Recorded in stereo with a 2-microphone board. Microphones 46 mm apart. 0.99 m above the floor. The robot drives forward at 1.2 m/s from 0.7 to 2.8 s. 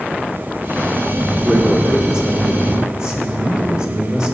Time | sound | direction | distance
1.4 | a man speaking | 30° right (ahead or behind) | 1.7 m